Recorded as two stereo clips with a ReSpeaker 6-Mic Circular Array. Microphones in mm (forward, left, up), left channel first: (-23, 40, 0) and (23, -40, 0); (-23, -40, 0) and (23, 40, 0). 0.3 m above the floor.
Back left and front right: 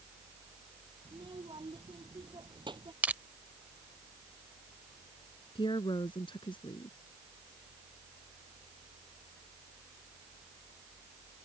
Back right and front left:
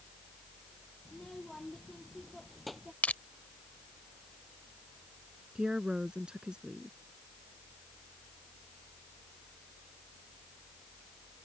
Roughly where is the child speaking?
Ahead right.